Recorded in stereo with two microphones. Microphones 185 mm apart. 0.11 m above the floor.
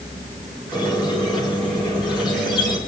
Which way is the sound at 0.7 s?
25° left (ahead or behind).